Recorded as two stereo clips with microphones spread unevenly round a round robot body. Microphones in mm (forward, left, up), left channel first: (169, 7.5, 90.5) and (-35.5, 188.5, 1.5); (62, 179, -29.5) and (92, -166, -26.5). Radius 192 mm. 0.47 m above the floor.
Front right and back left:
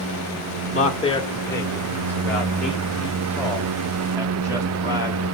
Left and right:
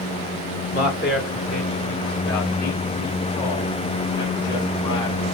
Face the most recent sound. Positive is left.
turn(degrees=70)